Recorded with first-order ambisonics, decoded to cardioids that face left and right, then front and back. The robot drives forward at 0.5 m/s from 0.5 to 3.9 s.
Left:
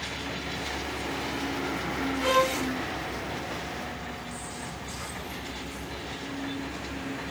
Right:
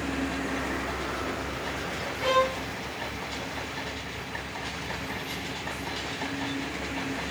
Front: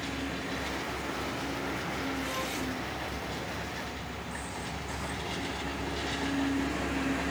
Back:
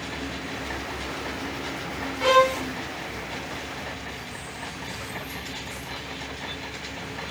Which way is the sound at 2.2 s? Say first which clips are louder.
Even, back 15 dB; 175° left.